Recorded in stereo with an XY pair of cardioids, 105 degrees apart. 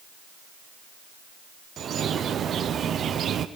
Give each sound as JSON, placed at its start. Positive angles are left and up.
{"t": 1.8, "sound": "a bird", "azimuth_deg": -55, "distance_m": 0.9}